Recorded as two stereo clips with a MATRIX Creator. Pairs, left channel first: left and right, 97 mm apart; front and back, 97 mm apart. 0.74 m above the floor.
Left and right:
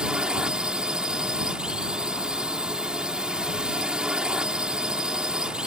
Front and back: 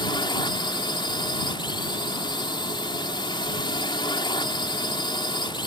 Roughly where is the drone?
Ahead.